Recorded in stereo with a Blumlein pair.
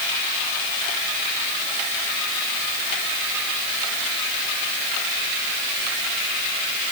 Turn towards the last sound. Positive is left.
No sound to turn to.